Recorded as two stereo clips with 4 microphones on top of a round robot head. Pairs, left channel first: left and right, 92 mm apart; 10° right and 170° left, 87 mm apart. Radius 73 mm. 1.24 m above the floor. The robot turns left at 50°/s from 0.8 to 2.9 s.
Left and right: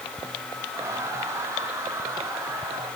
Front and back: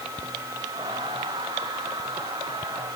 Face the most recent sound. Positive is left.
No sound to turn to.